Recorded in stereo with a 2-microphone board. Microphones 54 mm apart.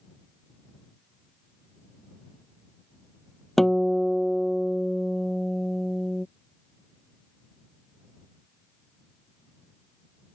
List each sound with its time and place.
3.6 s a guitar: 5° left (ahead or behind)